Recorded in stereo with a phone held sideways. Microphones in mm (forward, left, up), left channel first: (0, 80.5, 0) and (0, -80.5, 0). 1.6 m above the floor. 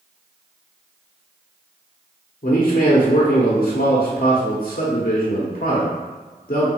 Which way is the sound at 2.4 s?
60° left (ahead or behind).